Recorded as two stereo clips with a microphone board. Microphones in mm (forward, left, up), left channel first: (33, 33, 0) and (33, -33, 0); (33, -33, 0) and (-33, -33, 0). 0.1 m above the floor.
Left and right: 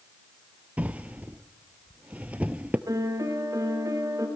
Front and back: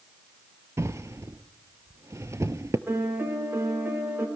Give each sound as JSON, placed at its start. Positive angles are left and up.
{"t": 0.8, "sound": "a drawer", "azimuth_deg": -155, "distance_m": 0.8}
{"t": 2.9, "sound": "a piano", "azimuth_deg": -125, "distance_m": 4.5}